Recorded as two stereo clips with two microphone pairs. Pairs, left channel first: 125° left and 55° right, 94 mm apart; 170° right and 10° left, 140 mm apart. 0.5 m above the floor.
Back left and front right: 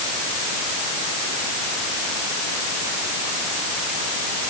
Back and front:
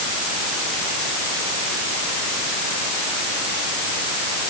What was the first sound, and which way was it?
Only background noise.